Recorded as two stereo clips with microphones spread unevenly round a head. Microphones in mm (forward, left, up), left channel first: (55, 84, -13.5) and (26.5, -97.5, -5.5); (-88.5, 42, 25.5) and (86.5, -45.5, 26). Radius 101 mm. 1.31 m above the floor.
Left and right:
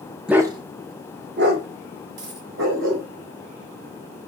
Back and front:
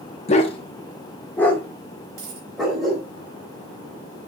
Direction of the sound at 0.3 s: 175° right.